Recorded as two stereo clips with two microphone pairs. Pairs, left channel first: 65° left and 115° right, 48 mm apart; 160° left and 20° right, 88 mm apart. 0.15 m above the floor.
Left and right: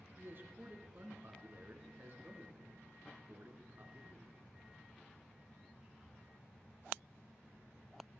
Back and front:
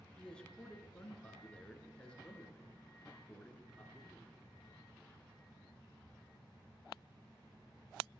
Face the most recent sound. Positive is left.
turn(degrees=-125)